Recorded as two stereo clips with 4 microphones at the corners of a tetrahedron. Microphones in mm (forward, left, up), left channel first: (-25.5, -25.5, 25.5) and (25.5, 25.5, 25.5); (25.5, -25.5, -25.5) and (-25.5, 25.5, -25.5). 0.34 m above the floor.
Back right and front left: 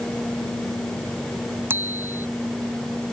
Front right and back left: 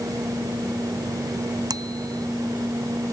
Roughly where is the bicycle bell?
Left.